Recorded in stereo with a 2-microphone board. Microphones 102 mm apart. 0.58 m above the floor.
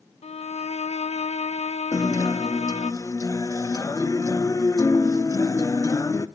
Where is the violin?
85° left, 0.5 m.